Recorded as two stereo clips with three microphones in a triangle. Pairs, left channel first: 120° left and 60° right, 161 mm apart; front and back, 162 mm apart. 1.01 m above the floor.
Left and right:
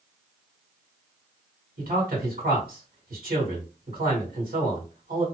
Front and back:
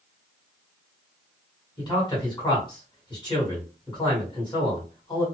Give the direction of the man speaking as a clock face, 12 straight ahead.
2 o'clock.